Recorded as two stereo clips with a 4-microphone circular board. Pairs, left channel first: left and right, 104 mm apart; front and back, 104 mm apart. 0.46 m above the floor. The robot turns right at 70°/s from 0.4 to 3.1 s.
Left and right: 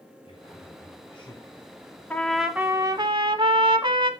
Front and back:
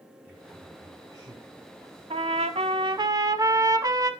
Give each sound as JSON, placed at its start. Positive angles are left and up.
{"t": 0.2, "sound": "a man speaking", "azimuth_deg": 75, "distance_m": 2.5}
{"t": 2.1, "sound": "a trumpet", "azimuth_deg": 160, "distance_m": 0.9}